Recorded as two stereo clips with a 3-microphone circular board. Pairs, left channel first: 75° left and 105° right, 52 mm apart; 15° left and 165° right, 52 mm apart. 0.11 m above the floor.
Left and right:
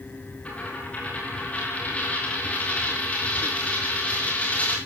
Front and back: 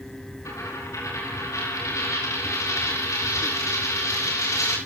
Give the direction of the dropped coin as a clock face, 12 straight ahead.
12 o'clock.